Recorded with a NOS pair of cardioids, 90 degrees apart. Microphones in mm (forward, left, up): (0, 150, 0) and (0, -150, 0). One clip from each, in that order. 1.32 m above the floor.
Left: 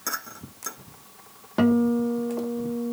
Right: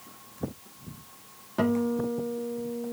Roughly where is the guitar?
Ahead left.